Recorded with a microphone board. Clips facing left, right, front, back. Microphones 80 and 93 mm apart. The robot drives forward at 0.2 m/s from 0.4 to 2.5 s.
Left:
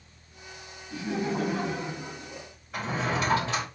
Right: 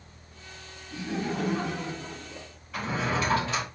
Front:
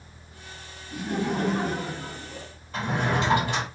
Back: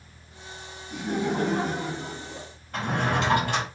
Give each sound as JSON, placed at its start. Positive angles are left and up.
{"t": 0.9, "sound": "laughter", "azimuth_deg": 120, "distance_m": 1.7}
{"t": 2.7, "sound": "a drawer", "azimuth_deg": 155, "distance_m": 2.0}